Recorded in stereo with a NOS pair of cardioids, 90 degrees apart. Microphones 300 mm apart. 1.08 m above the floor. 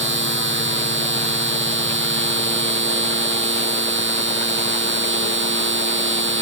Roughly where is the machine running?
Ahead right.